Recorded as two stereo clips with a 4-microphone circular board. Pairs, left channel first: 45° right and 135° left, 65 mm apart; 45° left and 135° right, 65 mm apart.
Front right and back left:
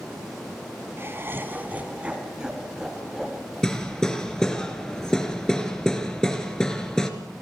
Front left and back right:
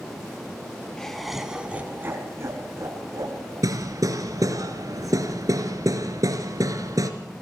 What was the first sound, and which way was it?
Laughter, 120° left.